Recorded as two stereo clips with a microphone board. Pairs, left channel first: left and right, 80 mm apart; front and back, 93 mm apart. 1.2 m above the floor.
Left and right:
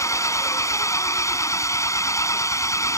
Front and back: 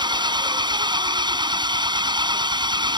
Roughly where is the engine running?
Behind left.